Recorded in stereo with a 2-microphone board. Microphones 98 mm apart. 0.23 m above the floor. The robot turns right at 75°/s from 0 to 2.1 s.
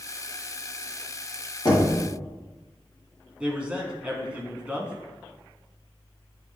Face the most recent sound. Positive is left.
turn(degrees=-10)  # may be behind; listen again after turning